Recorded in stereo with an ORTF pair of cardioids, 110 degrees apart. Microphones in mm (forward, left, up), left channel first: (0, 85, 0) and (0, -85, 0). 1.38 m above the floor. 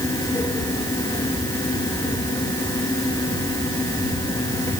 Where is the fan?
20° left, 3 m.